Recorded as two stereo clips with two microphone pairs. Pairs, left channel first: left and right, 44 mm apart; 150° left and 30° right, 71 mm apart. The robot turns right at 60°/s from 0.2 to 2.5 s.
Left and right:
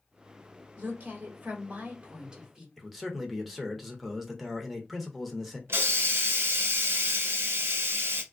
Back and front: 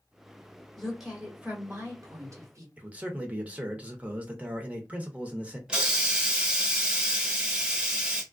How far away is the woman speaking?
About 1.7 m.